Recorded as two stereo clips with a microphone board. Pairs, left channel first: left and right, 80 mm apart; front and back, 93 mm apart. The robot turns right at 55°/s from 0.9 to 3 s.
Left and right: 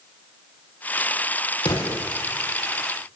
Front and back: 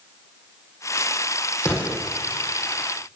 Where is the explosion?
60° left, 6.5 m; by 2.0 s 85° left, 6.5 m.